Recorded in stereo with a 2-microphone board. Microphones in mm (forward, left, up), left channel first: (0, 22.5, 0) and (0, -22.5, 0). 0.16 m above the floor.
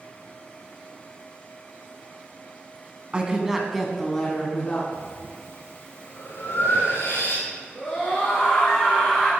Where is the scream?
15° left (ahead or behind), 2.0 m.